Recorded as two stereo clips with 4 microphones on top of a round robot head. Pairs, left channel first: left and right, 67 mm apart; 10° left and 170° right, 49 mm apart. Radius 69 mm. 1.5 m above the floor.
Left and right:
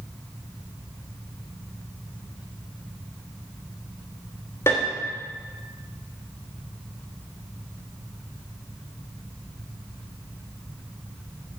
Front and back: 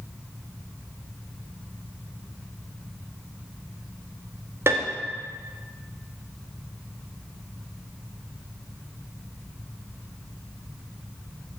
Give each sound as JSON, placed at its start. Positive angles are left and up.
{"t": 4.7, "sound": "a piano", "azimuth_deg": 155, "distance_m": 1.4}